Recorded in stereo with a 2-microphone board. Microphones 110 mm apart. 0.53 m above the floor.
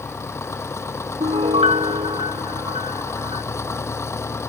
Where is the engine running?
25° left (ahead or behind).